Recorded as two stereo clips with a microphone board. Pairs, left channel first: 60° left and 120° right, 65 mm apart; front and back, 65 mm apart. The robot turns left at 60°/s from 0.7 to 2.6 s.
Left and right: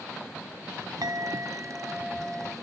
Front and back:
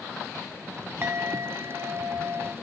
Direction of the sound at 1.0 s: 135° right.